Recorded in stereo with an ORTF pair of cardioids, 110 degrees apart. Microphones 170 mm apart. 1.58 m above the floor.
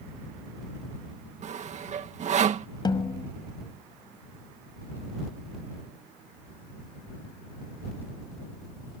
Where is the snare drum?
25° left.